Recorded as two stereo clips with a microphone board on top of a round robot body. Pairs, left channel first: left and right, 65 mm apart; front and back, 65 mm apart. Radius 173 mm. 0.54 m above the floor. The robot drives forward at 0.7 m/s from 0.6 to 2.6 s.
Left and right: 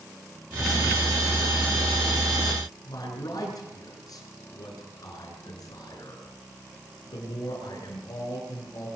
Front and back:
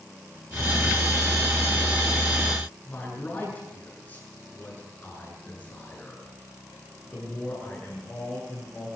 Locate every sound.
2.9 s a man speaking: 65° left, 8 m